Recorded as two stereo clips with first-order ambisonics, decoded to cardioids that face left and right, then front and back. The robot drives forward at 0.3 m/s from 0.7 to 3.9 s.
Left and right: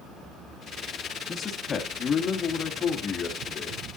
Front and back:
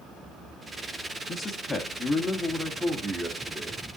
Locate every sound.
1.3 s a man speaking: 45° left, 1.2 m; by 3.8 s 120° left, 1.2 m